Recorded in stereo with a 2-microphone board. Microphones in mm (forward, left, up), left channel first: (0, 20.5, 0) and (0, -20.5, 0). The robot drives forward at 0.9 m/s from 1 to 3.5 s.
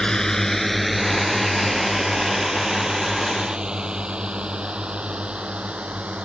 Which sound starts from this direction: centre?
A drone, at 0.0 s.